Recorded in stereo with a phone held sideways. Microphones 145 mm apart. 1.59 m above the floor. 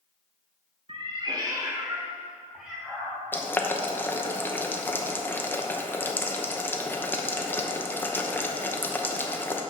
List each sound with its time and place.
0.9 s a cat meowing: 45° right (ahead or behind), 1.3 m; by 3.2 s centre (ahead or behind), 2.5 m
3.3 s boiling: 15° left (ahead or behind), 0.9 m